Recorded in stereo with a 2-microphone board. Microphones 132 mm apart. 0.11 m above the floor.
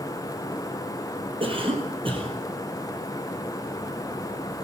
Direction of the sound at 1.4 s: 40° right (ahead or behind).